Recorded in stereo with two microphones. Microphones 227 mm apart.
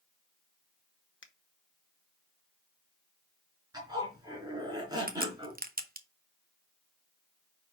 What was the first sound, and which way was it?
A finger snap, 60° left (ahead or behind).